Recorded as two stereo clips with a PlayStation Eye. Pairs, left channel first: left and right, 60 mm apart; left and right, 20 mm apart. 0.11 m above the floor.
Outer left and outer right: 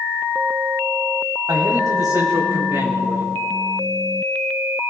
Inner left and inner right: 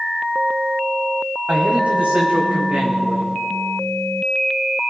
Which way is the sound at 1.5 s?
75° right (ahead or behind).